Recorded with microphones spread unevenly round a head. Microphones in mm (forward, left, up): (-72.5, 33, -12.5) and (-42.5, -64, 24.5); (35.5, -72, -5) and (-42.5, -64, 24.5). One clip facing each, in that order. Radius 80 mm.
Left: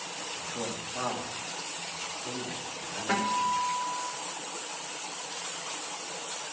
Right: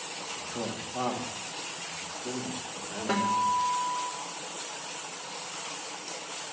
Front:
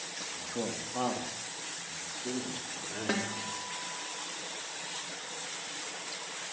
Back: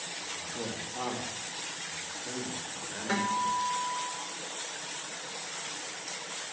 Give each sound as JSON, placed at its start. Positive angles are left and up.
{"t": 0.2, "sound": "a man speaking", "azimuth_deg": 0, "distance_m": 1.9}
{"t": 3.1, "sound": "a guitar", "azimuth_deg": 0, "distance_m": 3.5}